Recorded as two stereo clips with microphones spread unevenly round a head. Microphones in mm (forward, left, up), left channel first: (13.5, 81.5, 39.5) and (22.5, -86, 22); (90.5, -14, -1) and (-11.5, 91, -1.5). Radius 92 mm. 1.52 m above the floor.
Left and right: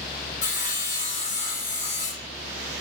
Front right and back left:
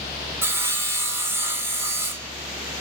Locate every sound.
0.4 s sawing: 65° left, 2 m